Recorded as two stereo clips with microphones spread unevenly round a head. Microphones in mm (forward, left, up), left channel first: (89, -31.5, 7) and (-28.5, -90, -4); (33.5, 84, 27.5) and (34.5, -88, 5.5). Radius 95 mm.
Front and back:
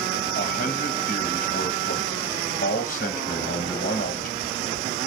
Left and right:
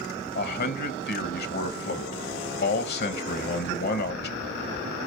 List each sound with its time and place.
0.3 s a man speaking: 70° left, 1.3 m